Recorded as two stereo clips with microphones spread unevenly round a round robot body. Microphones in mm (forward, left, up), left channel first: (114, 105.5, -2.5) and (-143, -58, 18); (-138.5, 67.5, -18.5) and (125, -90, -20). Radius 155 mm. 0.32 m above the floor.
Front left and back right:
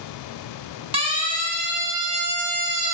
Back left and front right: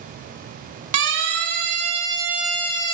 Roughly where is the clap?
No clap in this recording.